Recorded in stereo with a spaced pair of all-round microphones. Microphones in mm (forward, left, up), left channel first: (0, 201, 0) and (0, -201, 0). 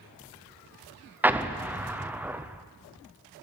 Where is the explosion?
5° right (ahead or behind), 0.5 m.